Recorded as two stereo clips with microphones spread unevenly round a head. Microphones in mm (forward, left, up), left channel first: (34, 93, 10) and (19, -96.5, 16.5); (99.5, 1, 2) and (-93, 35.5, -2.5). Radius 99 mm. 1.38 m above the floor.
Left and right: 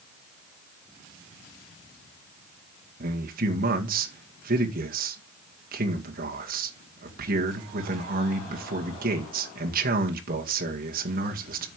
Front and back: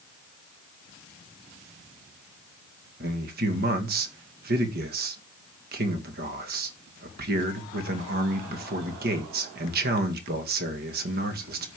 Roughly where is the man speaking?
Behind right.